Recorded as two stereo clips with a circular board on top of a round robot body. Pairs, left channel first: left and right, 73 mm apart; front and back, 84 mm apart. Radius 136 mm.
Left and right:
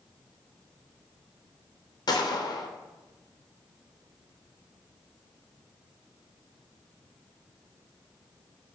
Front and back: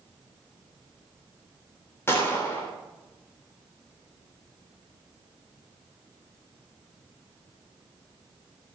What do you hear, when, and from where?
2.1 s a gunshot: 65° left, 3.5 m